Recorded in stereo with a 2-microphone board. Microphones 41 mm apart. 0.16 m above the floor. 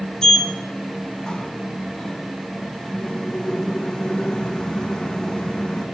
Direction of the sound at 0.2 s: 20° left (ahead or behind).